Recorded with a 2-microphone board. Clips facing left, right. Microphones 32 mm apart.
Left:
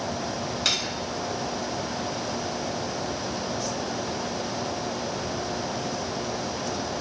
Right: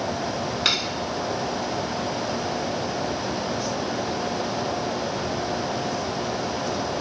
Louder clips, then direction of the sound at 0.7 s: Right 3 dB; 25° right (ahead or behind).